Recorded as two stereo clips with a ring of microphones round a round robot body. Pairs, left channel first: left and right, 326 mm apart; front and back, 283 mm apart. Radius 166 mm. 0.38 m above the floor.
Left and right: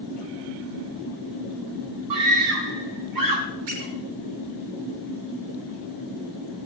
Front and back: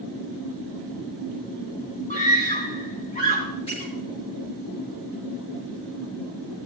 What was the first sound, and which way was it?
A scream, 70° right.